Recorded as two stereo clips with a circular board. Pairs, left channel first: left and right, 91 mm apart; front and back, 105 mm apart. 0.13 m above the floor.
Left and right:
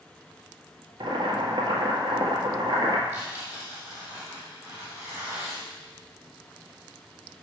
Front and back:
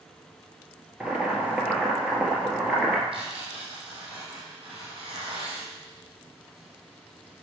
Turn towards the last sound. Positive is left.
turn(degrees=-160)